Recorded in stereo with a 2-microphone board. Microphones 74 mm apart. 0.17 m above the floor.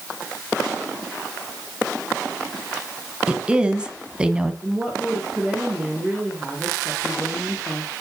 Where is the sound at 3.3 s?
10° right (ahead or behind), 1.2 m.